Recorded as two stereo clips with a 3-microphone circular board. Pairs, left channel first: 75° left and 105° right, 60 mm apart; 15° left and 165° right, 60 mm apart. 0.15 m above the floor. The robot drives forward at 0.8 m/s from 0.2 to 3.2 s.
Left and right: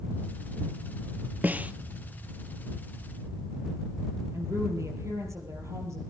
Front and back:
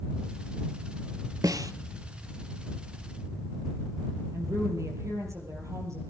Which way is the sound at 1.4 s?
165° right.